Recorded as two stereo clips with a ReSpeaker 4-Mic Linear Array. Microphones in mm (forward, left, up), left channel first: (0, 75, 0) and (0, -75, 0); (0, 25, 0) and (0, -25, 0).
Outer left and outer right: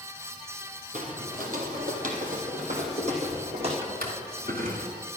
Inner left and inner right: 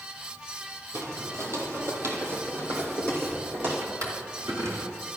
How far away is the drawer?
About 2.5 m.